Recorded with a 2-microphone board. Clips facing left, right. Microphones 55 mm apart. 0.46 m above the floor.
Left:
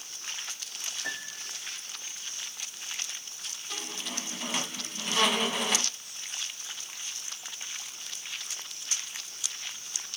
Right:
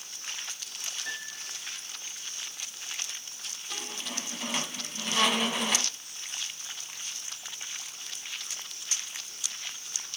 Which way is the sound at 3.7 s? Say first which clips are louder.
Even; centre (ahead or behind).